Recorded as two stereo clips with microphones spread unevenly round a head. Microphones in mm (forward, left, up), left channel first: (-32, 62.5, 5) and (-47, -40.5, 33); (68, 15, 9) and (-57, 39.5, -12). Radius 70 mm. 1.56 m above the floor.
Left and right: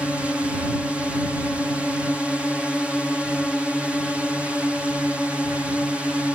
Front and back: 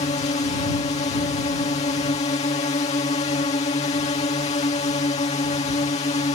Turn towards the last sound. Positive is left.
turn(degrees=-5)